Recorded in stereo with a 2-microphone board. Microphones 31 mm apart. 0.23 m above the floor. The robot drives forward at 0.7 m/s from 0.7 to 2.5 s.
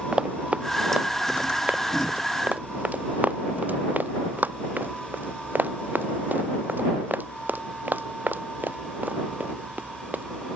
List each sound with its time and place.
0.1 s running footsteps: 30° right (ahead or behind); by 10.2 s 75° right (ahead or behind)